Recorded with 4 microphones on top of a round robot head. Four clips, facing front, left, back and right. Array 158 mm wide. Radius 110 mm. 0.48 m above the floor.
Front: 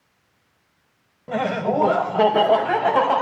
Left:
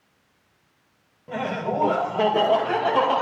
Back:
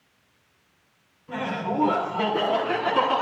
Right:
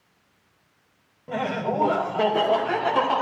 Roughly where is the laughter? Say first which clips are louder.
Even, front 6 dB; ahead.